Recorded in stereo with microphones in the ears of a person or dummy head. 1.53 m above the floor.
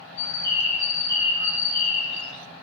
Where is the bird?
65° left (ahead or behind), 2.5 m.